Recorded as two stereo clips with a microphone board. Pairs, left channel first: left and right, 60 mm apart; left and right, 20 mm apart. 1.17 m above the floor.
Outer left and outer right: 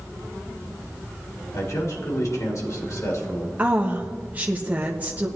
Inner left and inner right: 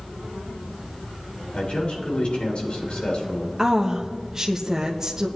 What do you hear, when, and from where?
1.5 s a man speaking: 65° left (ahead or behind), 3.5 m
3.6 s a woman speaking: 25° right (ahead or behind), 1.0 m